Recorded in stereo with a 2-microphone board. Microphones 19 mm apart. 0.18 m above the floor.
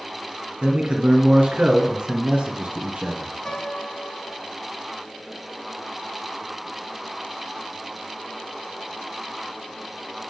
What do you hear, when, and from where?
0.6 s a man speaking: 45° right (ahead or behind), 1.5 m; by 3.3 s 60° right (ahead or behind), 2.5 m
3.5 s a piano: 45° left (ahead or behind), 1.4 m